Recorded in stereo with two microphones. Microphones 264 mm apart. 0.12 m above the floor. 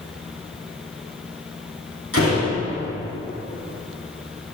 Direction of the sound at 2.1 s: 55° left (ahead or behind).